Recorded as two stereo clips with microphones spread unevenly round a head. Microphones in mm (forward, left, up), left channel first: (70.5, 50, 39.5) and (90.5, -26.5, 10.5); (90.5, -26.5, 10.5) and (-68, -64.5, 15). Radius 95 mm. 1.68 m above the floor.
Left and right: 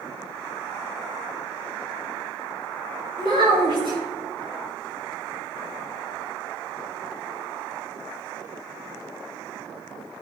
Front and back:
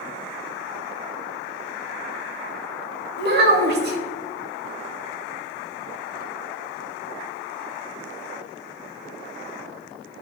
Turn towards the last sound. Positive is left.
turn(degrees=-145)